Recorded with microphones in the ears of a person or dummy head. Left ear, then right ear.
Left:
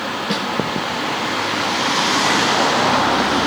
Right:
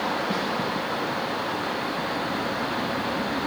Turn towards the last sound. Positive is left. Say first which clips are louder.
# left 5 dB
turn(degrees=45)  # may be behind; listen again after turning